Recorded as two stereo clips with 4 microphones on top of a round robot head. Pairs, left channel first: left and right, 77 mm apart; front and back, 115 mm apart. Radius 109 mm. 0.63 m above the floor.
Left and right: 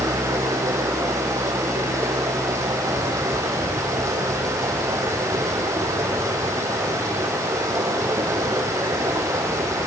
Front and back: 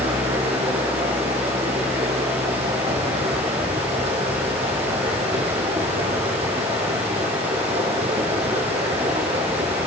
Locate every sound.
0.0 s running water: 140° right, 5.5 m